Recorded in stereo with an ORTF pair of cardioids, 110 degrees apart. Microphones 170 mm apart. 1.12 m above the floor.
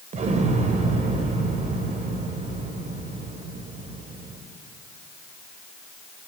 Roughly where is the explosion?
Ahead right.